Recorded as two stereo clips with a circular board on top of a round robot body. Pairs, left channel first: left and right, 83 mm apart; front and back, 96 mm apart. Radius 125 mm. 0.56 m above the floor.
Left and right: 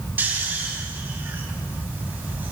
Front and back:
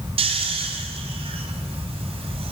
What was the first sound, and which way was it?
Snoring, 160° right.